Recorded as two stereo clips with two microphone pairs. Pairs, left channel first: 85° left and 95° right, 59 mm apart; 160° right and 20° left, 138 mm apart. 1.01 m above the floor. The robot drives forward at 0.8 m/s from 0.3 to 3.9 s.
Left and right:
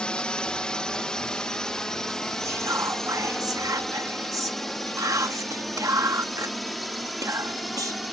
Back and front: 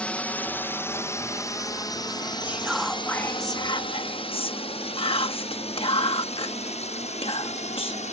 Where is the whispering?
60° right; by 8.1 s 110° right.